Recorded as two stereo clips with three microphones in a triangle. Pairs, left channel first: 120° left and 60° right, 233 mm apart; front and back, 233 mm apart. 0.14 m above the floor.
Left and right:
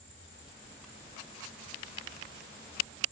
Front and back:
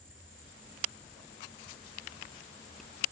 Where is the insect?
100° left, 6 m.